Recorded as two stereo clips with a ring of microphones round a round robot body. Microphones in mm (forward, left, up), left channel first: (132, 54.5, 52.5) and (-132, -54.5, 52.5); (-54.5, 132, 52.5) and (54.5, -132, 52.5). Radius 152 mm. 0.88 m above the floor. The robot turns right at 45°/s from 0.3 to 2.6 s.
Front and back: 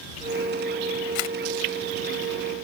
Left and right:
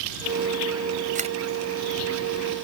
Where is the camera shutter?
5° right; by 1.4 s 5° left.